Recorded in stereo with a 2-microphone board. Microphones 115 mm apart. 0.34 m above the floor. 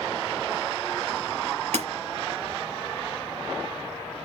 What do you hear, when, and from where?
1.7 s breaking glass: 80° right, 3.5 m